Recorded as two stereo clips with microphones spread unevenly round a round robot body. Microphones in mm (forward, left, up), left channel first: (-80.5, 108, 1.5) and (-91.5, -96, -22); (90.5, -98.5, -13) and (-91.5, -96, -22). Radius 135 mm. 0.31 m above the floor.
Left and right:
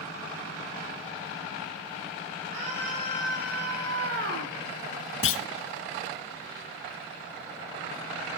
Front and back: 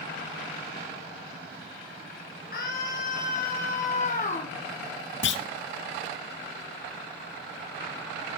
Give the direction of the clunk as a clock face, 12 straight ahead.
11 o'clock.